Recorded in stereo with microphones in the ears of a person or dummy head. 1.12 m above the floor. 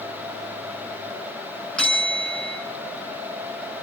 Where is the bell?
5° left (ahead or behind), 6.5 m.